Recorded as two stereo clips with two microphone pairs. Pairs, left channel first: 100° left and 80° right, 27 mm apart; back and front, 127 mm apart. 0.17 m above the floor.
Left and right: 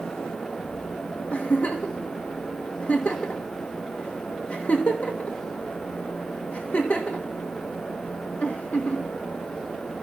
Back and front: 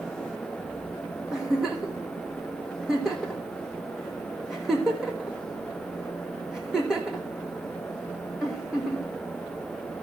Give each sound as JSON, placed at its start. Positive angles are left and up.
{"t": 1.3, "sound": "a giggle", "azimuth_deg": 85, "distance_m": 1.6}